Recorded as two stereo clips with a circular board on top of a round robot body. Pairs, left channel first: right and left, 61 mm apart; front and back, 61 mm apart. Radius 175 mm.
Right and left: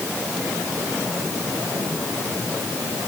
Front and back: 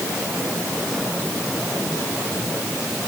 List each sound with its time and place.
Only background noise.